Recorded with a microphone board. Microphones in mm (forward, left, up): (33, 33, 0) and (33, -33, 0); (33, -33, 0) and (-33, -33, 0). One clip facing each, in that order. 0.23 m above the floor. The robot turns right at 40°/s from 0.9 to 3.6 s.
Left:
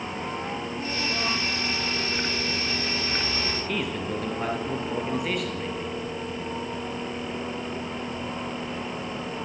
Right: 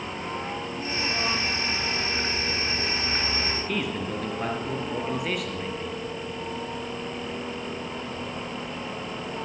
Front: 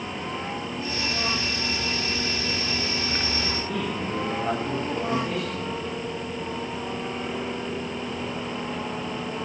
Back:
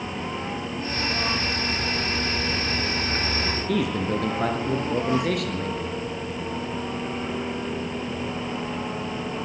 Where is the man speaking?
Straight behind, 5 m.